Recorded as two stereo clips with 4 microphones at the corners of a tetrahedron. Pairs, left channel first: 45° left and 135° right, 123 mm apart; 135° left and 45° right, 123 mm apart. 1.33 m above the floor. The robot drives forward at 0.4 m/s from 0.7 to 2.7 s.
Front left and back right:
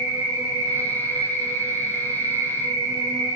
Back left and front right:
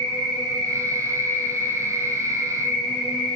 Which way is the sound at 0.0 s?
100° right.